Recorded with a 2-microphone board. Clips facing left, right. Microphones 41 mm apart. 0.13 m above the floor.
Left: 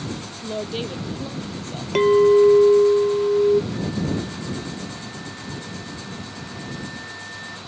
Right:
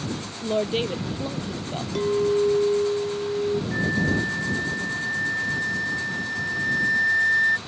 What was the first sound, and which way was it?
A woman speaking, 20° right (ahead or behind).